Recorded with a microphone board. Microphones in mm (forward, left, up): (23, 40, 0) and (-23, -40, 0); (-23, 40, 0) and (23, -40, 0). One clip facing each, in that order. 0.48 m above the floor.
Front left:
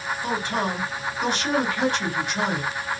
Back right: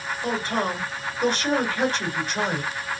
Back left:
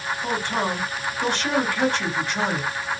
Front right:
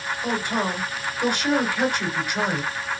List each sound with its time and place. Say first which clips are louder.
0.2 s a man speaking: back right 1 dB, even; 130° right, 1.6 m